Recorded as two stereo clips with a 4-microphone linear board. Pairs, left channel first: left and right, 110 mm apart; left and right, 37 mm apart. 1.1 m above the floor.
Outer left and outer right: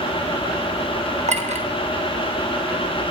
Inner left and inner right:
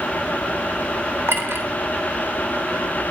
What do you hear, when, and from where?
1.3 s a clink: 75° right (ahead or behind), 1.1 m